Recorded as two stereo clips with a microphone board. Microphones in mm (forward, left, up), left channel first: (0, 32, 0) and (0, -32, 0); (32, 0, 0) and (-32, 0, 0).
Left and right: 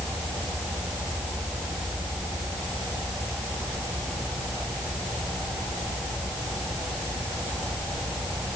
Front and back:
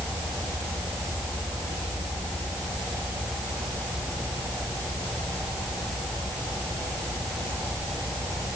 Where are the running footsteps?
I don't hear running footsteps.